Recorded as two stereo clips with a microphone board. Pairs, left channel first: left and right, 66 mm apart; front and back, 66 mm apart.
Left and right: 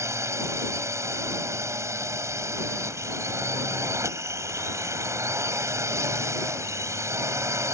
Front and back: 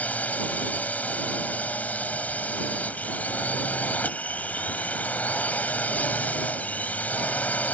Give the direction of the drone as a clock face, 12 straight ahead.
2 o'clock.